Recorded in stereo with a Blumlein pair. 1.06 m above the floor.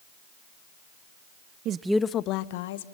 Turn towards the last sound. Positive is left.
turn(degrees=60)